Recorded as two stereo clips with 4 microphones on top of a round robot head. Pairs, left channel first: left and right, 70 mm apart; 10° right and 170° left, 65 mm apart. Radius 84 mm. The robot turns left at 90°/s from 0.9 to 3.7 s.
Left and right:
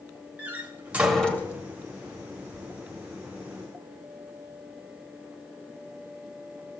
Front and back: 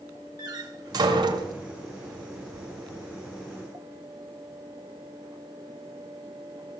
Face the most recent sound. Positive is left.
turn(degrees=-50)